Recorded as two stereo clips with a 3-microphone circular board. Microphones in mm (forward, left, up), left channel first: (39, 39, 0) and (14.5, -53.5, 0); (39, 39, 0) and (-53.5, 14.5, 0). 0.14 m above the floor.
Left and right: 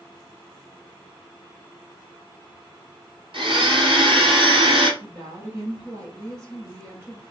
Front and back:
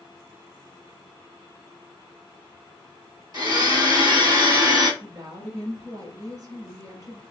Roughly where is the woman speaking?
Behind right.